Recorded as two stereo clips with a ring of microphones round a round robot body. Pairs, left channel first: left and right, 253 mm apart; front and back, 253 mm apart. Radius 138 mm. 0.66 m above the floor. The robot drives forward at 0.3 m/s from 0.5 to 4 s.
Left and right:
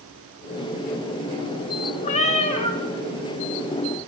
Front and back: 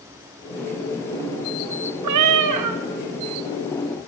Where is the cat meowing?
155° left, 0.7 m; by 2.8 s 160° left, 0.9 m.